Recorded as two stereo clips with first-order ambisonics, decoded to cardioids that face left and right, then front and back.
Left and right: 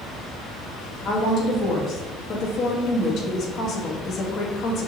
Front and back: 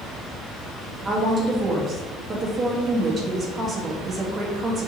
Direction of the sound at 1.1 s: 120° left.